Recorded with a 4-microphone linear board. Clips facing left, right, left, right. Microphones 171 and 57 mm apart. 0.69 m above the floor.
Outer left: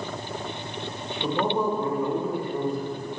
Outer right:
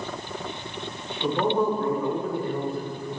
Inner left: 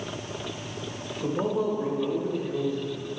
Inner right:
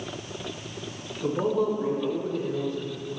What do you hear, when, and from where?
1.2 s a man speaking: 15° left (ahead or behind), 2.5 m